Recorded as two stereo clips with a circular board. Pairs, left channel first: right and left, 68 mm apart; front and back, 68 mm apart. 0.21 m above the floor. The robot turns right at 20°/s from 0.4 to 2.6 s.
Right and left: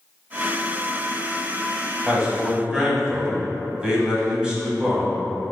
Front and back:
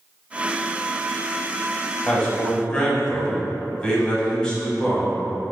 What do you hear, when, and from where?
2.1 s a man speaking: 35° left, 1.0 m; by 5.2 s 45° left, 1.0 m